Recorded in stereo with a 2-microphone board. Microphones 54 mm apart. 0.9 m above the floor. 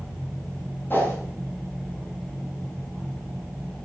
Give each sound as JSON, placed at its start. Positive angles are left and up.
{"t": 0.9, "sound": "a whoosh", "side_deg": 40, "distance_m": 6.0}